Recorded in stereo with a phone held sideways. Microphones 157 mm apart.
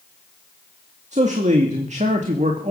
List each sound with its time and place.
1.1 s a man speaking: 50° right (ahead or behind), 2 m